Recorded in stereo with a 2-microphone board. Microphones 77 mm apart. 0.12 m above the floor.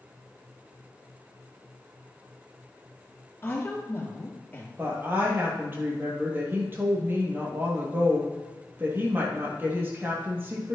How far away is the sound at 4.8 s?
About 2.5 m.